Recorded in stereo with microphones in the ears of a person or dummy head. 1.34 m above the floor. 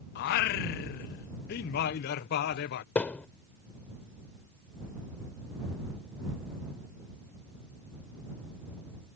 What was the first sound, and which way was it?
Singing, 55° left (ahead or behind).